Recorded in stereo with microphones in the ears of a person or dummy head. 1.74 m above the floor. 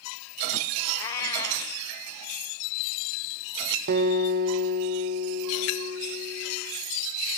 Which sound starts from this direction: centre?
A cat meowing, at 1.0 s.